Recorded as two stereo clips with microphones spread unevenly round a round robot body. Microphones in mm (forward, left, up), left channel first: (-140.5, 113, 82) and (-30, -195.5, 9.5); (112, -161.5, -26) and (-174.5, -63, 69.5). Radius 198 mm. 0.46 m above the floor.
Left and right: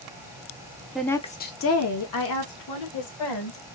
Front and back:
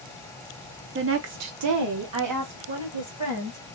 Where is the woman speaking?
140° right, 0.9 m; by 3.6 s 105° left, 2 m.